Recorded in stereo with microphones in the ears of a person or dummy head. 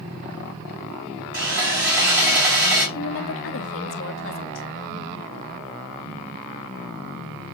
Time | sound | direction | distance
1.3 | sawing | 50° right (ahead or behind) | 3 m
3.0 | a woman speaking | 65° left (ahead or behind) | 0.9 m